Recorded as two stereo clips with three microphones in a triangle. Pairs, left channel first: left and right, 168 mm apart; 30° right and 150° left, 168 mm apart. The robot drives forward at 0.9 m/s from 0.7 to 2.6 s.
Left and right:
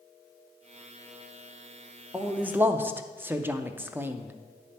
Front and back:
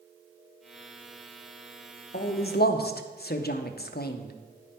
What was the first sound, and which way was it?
A man speaking, 5° right.